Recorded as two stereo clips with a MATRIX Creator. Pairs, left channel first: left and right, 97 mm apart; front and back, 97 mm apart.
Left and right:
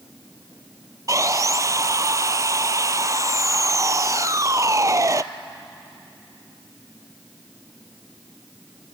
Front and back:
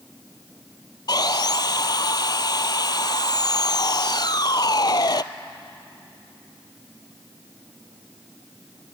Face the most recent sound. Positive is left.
turn(degrees=-40)